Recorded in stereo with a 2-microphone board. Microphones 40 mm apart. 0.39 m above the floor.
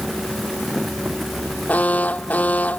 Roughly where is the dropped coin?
No dropped coin in this recording.